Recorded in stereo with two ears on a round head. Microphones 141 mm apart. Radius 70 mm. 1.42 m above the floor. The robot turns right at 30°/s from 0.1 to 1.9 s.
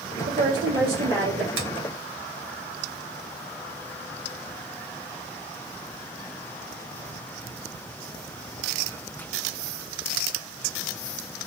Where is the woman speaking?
130° right, 1.8 m; by 1.5 s 90° right, 1.8 m.